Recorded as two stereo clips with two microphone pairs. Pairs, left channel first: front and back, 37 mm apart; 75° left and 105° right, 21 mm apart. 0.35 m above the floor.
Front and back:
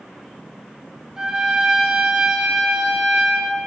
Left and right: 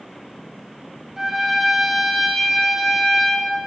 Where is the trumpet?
140° right, 0.7 m.